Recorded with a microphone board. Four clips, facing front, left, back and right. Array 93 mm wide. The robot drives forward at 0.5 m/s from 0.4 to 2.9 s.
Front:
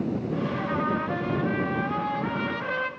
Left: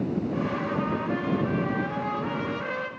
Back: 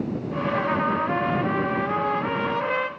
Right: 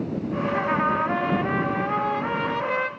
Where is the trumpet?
115° right, 1.0 m; by 2.9 s 155° right, 1.8 m.